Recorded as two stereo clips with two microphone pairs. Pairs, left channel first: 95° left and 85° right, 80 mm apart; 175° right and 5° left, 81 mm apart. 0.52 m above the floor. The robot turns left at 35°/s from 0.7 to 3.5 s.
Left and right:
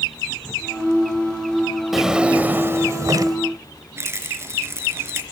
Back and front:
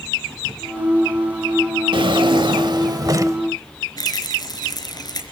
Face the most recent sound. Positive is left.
turn(degrees=-140)